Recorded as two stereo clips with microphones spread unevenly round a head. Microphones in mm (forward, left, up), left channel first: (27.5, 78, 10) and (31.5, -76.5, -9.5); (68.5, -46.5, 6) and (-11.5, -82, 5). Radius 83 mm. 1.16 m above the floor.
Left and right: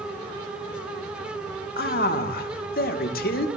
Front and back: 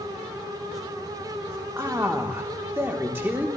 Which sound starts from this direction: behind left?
A man speaking, at 1.8 s.